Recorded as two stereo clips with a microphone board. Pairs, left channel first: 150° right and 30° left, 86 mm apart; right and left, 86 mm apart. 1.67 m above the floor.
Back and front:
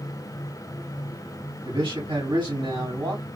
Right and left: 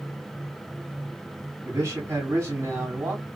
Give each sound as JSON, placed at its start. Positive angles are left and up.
{"t": 1.6, "sound": "a man speaking", "azimuth_deg": 40, "distance_m": 2.5}